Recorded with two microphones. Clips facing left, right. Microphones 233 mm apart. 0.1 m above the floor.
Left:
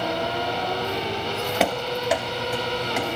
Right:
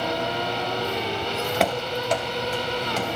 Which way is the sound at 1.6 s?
Centre (ahead or behind).